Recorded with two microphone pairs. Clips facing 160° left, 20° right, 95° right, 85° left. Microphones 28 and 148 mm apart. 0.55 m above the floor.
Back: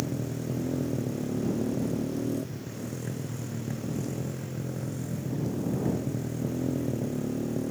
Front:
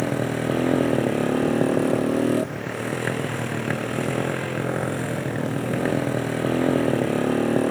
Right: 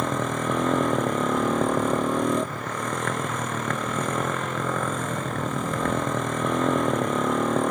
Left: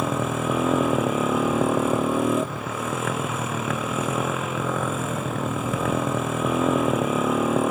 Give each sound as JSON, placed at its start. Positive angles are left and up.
{"t": 0.0, "sound": "a motorcycle", "azimuth_deg": 5}